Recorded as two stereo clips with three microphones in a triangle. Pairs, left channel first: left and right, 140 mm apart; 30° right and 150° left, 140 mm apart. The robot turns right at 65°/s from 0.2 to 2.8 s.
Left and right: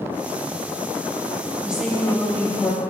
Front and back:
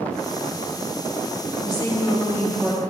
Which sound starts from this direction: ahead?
A woman speaking, at 1.6 s.